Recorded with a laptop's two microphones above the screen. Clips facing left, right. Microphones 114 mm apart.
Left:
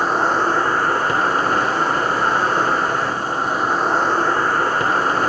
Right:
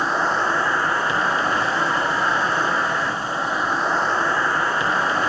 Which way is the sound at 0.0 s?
40° left (ahead or behind).